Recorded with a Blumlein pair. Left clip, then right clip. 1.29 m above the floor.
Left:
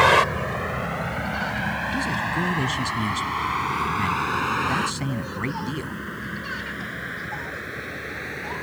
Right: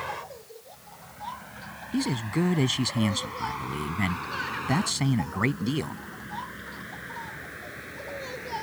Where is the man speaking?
10° right.